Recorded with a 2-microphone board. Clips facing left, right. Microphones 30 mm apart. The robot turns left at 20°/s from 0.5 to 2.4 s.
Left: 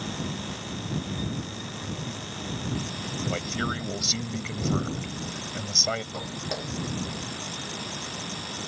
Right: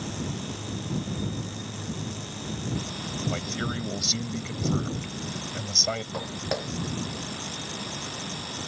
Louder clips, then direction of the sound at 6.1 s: Right 2 dB; 30° right (ahead or behind).